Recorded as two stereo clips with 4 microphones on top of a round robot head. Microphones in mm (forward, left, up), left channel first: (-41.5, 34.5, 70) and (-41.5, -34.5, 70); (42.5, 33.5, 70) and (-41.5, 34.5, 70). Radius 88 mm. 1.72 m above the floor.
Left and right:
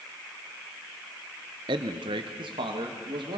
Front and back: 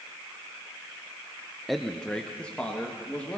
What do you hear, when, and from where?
1.7 s a man speaking: 90° right, 0.8 m; by 3.4 s 80° right, 3 m